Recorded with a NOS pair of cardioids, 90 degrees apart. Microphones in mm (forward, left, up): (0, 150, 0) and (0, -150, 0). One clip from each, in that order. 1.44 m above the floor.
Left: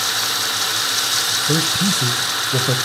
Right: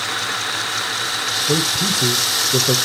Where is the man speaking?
5° left, 0.7 m.